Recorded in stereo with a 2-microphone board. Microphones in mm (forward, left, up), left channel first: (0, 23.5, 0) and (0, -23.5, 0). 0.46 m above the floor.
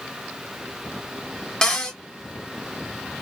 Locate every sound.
1.6 s a cupboard door: 15° left (ahead or behind), 1.0 m